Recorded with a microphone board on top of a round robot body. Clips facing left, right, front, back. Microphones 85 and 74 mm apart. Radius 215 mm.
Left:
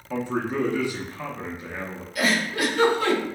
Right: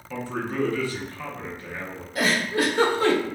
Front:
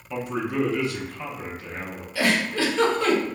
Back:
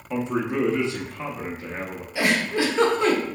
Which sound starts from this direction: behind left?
A man speaking, at 0.1 s.